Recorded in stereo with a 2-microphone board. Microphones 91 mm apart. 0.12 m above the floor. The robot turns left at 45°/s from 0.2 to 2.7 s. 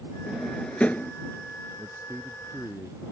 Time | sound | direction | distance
0.3 | a drawer | 5° right (ahead or behind) | ?
1.8 | a man speaking | 150° right | ?